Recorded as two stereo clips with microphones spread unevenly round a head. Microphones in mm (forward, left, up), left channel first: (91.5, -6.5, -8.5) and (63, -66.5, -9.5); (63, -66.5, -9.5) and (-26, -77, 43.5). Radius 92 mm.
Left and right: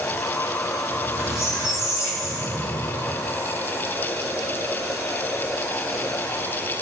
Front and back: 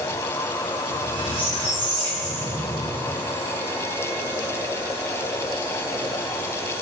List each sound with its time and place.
0.9 s a squeak: straight behind, 5 m